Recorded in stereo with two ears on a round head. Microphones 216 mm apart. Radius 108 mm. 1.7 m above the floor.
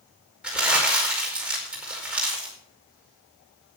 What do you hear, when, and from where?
0.4 s crumpling: 5° right (ahead or behind), 5 m